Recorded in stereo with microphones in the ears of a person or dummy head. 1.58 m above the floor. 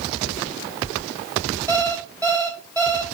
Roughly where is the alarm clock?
Centre.